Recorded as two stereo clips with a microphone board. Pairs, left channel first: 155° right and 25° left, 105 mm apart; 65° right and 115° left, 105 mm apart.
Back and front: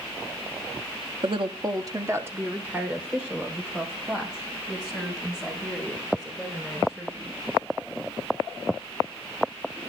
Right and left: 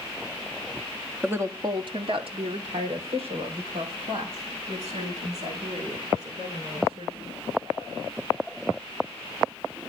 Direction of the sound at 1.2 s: 40° left.